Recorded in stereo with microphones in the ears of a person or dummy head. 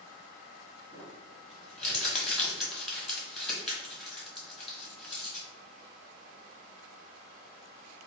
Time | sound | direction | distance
0.9 | crumpling | centre (ahead or behind) | 1.0 m